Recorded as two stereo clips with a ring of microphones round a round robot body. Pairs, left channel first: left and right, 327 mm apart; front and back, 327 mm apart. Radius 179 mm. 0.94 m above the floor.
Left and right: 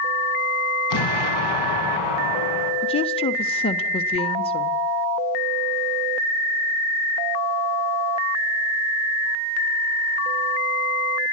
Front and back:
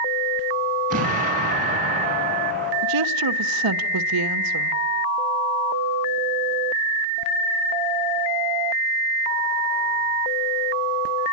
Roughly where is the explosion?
Left.